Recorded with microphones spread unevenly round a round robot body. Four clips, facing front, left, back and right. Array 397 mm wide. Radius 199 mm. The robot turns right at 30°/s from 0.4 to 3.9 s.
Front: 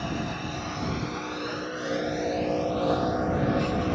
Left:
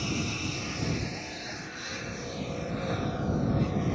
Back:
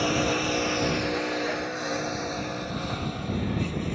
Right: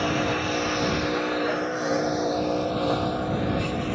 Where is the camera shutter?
I don't hear a camera shutter.